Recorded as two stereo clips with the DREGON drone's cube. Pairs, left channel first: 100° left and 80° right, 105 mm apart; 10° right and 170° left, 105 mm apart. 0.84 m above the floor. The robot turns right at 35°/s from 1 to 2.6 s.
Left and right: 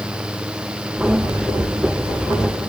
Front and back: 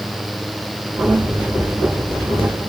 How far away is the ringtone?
No ringtone in this recording.